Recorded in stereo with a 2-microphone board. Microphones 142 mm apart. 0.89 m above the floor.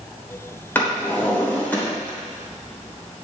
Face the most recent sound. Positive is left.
turn(degrees=15)  # may be behind; listen again after turning